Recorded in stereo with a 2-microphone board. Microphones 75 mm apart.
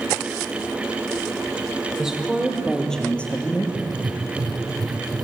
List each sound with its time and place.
2.0 s a woman speaking: 10° right (ahead or behind), 4.5 m; by 3.6 s 25° left (ahead or behind), 3.5 m
3.8 s writing: 70° right (ahead or behind), 1.8 m